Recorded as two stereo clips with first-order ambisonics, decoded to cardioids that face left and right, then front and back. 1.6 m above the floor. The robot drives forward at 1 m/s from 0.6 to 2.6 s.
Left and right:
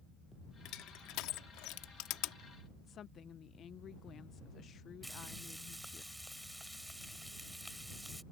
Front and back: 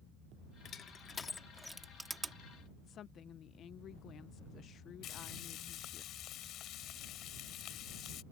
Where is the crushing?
60° left; by 2.4 s 110° left.